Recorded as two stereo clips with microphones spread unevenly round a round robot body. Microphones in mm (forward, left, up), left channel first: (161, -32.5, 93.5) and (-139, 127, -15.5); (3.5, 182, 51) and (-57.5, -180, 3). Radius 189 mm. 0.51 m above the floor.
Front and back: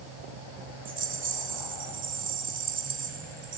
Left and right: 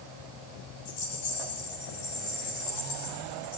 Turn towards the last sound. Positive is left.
turn(degrees=90)